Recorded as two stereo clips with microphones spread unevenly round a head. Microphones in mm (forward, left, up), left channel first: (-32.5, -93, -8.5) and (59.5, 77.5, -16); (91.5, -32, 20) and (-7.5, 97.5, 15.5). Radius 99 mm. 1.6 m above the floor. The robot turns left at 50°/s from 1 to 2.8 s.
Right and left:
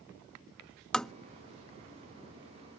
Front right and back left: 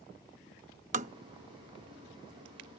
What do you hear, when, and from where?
0.9 s tapping: 160° left; by 1.1 s 155° left